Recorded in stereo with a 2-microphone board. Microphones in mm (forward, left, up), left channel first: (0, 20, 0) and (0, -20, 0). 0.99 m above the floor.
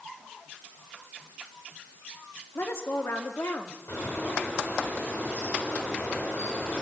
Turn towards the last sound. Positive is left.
turn(degrees=85)